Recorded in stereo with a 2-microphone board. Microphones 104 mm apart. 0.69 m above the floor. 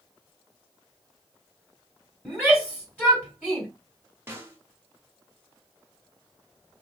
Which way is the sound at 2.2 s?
5° left (ahead or behind).